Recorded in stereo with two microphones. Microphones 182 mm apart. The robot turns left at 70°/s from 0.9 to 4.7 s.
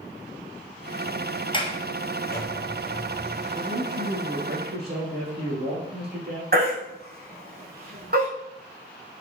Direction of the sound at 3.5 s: 30° right.